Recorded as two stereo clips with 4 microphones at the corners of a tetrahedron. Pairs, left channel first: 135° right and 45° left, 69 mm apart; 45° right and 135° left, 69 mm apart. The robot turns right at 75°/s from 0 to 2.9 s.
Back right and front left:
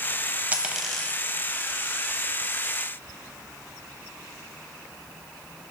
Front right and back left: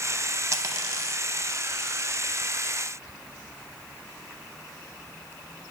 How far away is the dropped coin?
About 0.7 m.